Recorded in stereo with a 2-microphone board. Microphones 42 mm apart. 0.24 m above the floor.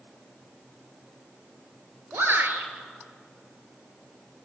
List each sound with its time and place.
2.1 s a shout: 60° right (ahead or behind), 4 m